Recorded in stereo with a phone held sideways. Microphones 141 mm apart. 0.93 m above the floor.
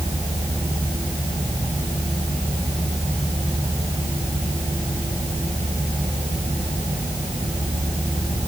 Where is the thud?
I don't hear a thud.